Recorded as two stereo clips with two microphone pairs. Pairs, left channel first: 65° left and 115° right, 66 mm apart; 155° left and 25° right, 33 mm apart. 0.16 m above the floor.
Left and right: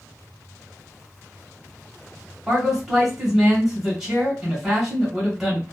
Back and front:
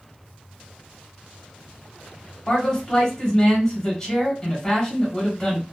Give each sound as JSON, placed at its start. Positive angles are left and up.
{"t": 2.5, "sound": "a man speaking", "azimuth_deg": 170, "distance_m": 1.4}